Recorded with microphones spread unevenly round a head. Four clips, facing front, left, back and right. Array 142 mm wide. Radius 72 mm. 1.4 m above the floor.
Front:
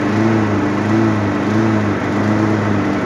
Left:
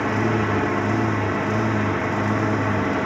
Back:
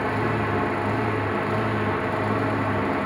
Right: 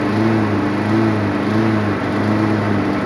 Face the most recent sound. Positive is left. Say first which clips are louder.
# right 6 dB, front 10 dB
turn(degrees=-35)